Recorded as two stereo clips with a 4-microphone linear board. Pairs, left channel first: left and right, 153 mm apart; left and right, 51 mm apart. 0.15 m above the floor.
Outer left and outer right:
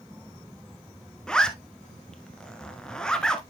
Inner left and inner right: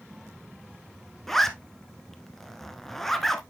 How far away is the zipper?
About 1.0 m.